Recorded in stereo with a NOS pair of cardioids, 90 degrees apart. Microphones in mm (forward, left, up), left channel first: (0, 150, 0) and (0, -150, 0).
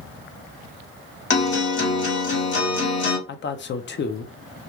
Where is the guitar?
40° left, 1.5 m.